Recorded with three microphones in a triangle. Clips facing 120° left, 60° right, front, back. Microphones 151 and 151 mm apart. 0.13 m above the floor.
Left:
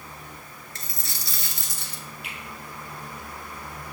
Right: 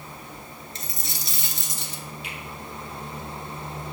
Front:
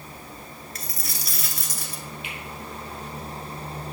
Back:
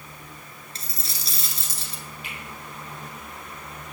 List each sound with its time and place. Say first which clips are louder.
0.8 s a dropped coin: right 1 dB, front 2 dB; 125° right, 0.8 m
2.2 s a finger snap: right 2 dB, front 2 dB; 140° left, 2.5 m